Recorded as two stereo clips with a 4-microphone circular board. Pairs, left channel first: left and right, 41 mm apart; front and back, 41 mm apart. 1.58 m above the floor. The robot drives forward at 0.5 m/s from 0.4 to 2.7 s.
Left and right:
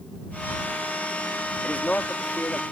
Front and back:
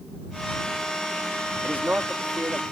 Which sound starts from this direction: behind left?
A man speaking, at 1.6 s.